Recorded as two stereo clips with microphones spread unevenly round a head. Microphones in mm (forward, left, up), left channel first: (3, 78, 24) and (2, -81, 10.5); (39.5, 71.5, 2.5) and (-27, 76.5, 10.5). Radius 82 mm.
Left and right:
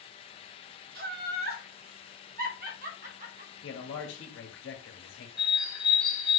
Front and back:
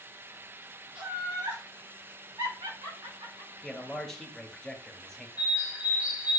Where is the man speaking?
75° left, 1.8 m.